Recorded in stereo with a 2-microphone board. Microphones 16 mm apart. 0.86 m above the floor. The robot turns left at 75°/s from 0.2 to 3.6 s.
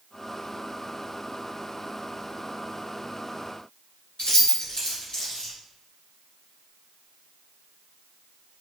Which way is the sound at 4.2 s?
55° left (ahead or behind).